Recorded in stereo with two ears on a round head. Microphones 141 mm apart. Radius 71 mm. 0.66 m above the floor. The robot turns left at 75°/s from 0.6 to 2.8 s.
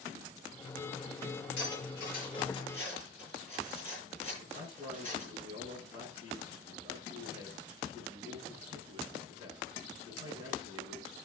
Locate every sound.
1.6 s cutlery clinking: 75° left (ahead or behind), 8 m; by 5.3 s 10° left (ahead or behind), 8 m
4.4 s a man speaking: 35° left (ahead or behind), 8.5 m